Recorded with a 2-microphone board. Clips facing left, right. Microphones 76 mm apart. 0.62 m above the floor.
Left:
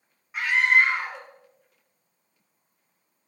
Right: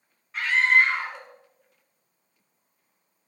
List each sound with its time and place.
0.3 s a scream: 15° left (ahead or behind), 2 m